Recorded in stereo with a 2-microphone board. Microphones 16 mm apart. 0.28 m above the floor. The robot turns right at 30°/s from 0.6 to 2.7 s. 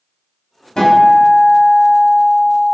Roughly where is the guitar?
Left.